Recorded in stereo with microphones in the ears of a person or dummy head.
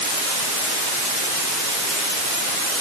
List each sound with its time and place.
Only background noise.